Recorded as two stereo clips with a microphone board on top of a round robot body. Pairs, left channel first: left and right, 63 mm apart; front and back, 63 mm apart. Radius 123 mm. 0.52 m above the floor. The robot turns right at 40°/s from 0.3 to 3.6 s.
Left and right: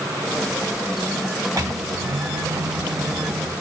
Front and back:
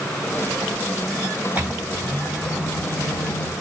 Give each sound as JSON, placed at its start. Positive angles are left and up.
{"t": 1.6, "sound": "a microwave", "azimuth_deg": -115, "distance_m": 4.5}